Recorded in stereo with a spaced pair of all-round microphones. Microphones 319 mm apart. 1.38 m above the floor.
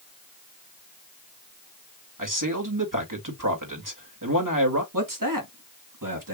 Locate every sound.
2.2 s a man speaking: 70° right (ahead or behind), 2.5 m
4.9 s a man speaking: 75° right (ahead or behind), 2 m